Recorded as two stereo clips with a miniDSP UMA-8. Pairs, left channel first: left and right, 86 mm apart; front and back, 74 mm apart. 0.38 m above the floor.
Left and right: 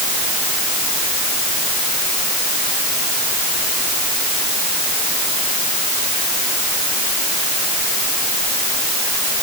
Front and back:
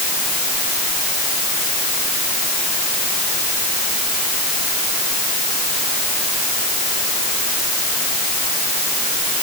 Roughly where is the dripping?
I don't hear dripping.